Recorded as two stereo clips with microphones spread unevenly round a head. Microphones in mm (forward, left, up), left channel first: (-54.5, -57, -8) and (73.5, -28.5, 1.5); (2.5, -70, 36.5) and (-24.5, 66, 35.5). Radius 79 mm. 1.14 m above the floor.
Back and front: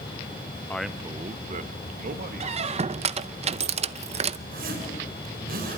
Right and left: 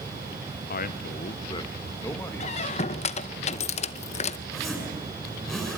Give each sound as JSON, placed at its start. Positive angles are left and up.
{"t": 0.7, "sound": "a man speaking", "azimuth_deg": -95, "distance_m": 0.7}
{"t": 2.4, "sound": "a squeak", "azimuth_deg": -30, "distance_m": 0.7}
{"t": 4.5, "sound": "a zipper", "azimuth_deg": 10, "distance_m": 7.0}